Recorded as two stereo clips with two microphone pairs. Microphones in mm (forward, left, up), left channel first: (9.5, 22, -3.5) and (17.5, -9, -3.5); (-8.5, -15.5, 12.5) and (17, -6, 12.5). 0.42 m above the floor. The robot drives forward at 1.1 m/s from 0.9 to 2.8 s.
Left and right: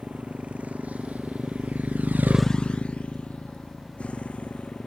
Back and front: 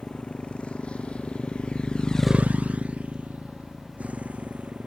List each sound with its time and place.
0.0 s a motorcycle: 120° right; by 4.9 s 50° left